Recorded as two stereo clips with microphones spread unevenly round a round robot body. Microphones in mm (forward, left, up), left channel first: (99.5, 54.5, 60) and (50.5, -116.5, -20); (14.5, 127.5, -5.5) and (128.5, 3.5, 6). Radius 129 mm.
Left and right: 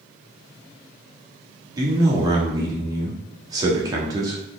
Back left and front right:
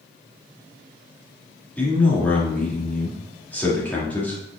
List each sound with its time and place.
1.8 s a man speaking: 150° right, 1.7 m